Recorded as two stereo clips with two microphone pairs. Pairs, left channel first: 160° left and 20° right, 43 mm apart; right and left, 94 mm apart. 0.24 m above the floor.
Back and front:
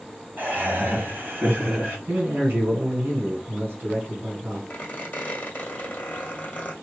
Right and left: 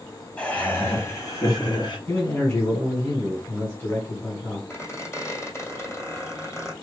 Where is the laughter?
15° right, 1.5 m; by 2.0 s 60° right, 2.5 m.